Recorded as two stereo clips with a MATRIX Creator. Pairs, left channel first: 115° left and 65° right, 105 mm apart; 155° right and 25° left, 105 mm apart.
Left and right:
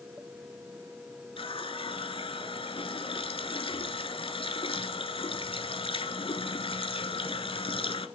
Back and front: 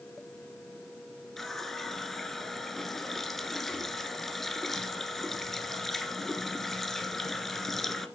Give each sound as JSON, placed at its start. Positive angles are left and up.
{"t": 1.4, "sound": "a running tap", "azimuth_deg": 115, "distance_m": 1.3}